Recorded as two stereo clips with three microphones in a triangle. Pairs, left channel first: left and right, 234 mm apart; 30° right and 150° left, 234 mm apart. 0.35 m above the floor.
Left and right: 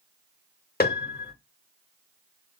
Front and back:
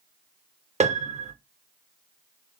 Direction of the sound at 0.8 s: 105° left.